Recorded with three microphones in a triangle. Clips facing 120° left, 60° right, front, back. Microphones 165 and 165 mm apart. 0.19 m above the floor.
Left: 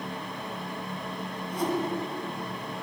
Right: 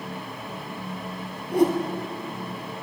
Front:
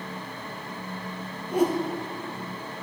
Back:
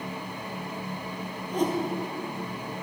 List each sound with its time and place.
1.5 s a whoosh: 80° right, 2 m